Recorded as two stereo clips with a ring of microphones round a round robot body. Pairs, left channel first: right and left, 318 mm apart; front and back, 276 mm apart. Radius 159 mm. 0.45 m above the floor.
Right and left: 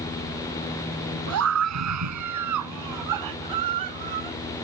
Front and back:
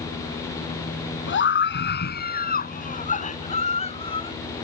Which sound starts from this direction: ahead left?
A scream, at 1.3 s.